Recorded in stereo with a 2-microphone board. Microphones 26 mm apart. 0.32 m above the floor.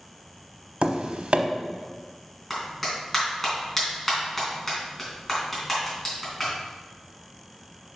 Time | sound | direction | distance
0.8 | tapping | 65° right (ahead or behind) | 0.8 m
2.5 | a clap | 15° left (ahead or behind) | 3.5 m